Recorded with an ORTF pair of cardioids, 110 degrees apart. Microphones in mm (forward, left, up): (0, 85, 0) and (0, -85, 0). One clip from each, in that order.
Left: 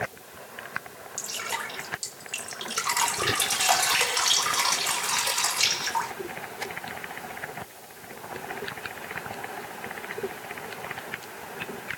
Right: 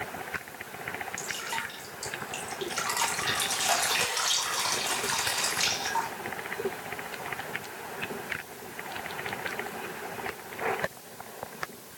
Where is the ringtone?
I don't hear a ringtone.